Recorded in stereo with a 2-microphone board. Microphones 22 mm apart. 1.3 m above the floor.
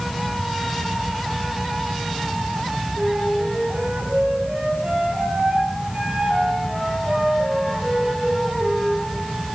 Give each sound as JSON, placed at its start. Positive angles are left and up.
{"t": 3.0, "sound": "a flute", "side_deg": -55, "distance_m": 6.5}